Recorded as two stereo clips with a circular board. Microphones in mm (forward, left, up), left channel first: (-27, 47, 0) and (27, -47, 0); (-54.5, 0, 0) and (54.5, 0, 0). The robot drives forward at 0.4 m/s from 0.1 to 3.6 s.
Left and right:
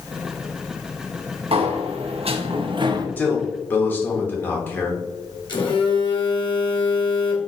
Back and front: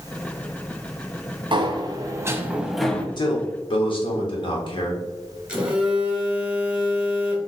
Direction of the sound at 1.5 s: 40° right.